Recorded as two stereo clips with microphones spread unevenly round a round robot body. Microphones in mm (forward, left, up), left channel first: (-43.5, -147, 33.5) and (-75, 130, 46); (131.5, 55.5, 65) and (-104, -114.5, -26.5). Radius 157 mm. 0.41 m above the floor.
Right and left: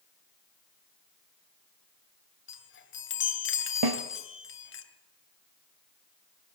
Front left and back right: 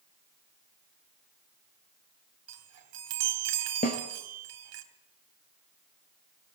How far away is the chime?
About 2.5 m.